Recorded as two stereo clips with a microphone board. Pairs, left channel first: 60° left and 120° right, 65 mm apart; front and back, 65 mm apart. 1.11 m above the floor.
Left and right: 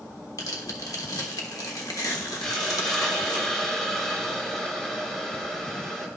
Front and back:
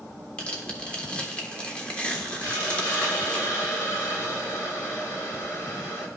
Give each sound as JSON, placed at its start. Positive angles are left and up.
{"t": 0.4, "sound": "tearing paper", "azimuth_deg": 70, "distance_m": 1.2}
{"t": 2.4, "sound": "a hiss", "azimuth_deg": -20, "distance_m": 1.4}